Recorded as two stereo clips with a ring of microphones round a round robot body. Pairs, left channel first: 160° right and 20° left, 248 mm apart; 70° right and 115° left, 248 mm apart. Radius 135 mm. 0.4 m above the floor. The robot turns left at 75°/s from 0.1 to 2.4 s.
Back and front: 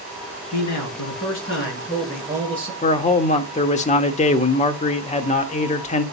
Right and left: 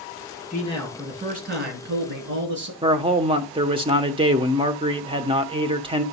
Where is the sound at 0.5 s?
125° right, 7 m; by 2.7 s 95° left, 7 m.